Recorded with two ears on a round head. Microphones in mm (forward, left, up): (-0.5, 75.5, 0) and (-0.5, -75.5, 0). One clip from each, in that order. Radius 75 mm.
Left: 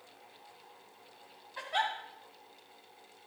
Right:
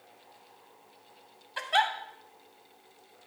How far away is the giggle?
About 2.5 m.